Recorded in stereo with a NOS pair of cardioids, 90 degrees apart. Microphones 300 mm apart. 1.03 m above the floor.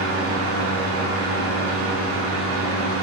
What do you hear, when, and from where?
0.0 s a fan: 50° right, 1.0 m